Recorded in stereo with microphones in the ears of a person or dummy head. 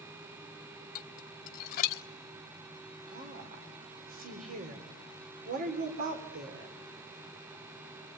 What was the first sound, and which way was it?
Dishes clattering, 50° left (ahead or behind).